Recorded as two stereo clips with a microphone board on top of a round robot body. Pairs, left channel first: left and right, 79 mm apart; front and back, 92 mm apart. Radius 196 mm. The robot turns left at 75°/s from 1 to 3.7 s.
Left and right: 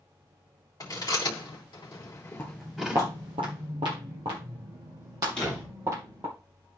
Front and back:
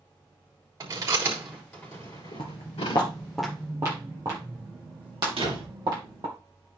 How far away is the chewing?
About 3.5 m.